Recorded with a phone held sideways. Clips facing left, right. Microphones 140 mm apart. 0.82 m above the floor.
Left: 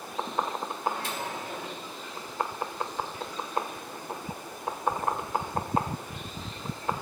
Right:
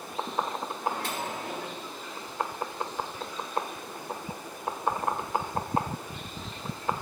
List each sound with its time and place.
0.8 s a microwave: 65° right (ahead or behind), 2 m